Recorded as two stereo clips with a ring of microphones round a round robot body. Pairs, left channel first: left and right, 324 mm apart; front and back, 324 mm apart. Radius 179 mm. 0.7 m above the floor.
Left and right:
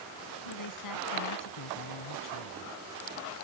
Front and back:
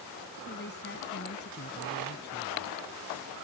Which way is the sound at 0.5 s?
65° left.